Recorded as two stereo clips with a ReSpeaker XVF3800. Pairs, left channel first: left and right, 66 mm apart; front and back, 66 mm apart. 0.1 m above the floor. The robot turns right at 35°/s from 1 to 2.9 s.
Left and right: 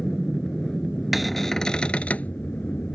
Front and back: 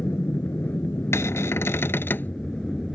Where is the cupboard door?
5° right; by 2.3 s 40° left.